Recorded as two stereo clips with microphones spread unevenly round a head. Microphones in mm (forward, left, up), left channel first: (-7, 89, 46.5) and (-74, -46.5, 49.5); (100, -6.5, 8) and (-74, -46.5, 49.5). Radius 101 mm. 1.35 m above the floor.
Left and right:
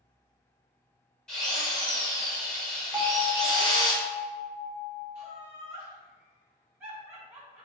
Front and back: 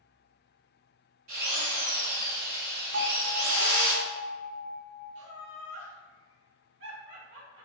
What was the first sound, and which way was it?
A drill, 150° left.